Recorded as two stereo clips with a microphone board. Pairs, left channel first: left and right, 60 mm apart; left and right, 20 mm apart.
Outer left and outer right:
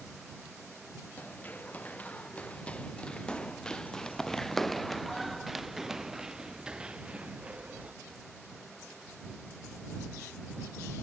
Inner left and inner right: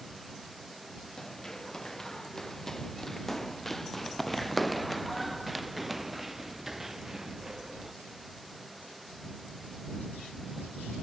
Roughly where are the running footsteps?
Left.